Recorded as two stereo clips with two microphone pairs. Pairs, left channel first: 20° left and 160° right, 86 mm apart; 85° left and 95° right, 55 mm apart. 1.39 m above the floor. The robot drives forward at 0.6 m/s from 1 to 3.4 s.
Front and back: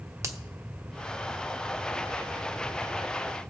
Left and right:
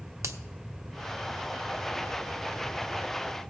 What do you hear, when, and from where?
0.2 s a finger snap: 105° right, 0.9 m